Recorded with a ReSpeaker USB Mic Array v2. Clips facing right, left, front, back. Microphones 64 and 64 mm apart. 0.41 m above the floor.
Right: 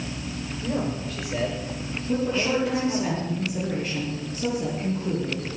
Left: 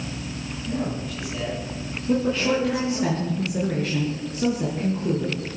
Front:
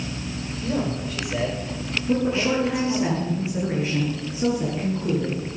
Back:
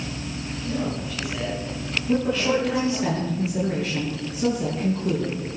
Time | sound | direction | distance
0.6 | a man speaking | 35° right | 9 m
2.1 | a woman speaking | 65° left | 6 m